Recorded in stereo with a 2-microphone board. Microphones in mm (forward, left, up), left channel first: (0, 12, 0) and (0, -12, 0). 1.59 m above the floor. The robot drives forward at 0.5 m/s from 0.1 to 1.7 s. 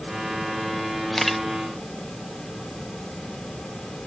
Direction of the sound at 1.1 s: 10° left (ahead or behind).